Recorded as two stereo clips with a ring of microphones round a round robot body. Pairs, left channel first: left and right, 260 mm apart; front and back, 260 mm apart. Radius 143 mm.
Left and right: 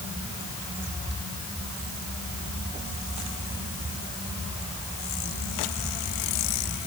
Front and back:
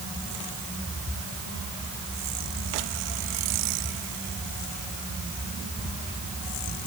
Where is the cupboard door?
I don't hear a cupboard door.